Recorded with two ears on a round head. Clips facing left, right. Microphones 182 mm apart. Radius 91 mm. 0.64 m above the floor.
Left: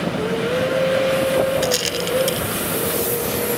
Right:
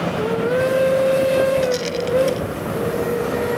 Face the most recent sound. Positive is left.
turn(degrees=70)  # may be behind; listen again after turning